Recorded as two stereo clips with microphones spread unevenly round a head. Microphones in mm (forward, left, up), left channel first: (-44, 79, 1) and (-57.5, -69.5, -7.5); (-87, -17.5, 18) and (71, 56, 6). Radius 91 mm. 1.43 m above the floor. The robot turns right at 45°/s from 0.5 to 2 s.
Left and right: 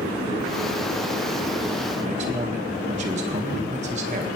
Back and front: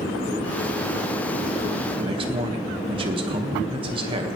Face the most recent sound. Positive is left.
turn(degrees=-40)